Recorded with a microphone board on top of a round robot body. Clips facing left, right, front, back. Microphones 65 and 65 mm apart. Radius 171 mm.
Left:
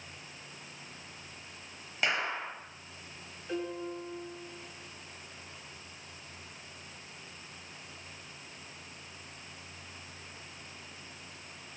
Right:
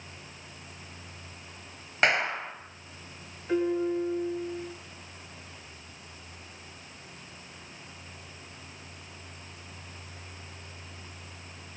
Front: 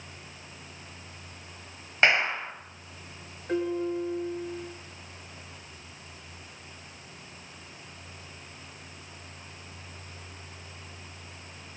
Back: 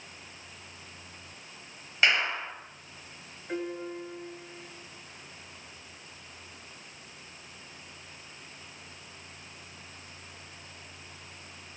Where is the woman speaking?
I don't hear a woman speaking.